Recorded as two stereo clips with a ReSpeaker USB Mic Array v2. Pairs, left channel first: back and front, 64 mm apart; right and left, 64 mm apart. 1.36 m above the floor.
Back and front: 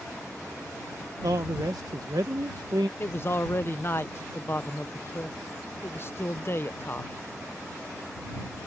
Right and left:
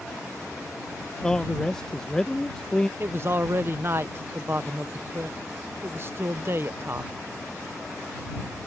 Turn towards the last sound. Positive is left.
turn(degrees=135)